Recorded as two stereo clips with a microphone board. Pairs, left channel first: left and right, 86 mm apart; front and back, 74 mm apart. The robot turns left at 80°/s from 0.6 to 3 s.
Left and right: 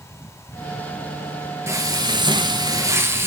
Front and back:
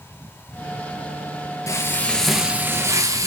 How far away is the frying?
About 1.1 m.